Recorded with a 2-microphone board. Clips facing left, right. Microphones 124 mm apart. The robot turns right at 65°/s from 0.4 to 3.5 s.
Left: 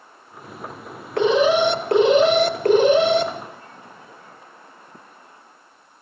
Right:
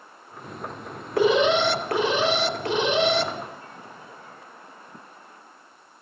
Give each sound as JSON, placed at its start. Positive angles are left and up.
{"t": 1.2, "sound": "an alarm", "azimuth_deg": -10, "distance_m": 2.5}